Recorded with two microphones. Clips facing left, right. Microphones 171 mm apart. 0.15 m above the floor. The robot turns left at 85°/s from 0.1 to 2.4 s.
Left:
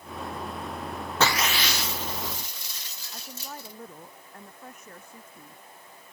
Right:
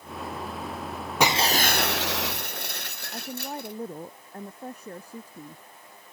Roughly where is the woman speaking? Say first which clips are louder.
Right 7 dB; right.